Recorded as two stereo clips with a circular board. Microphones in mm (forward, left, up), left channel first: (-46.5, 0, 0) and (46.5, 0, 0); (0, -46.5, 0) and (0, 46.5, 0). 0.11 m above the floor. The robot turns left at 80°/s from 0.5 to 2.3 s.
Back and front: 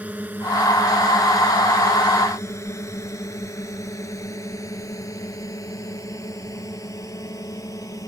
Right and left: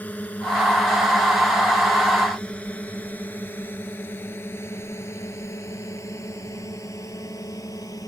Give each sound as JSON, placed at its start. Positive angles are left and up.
{"t": 0.0, "sound": "a drone", "azimuth_deg": -50}